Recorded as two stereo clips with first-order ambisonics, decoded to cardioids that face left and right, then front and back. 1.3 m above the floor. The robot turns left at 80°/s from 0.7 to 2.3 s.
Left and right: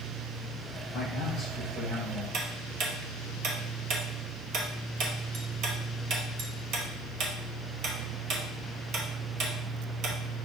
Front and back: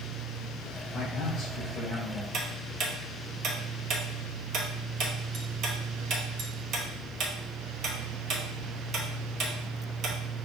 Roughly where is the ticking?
Behind right.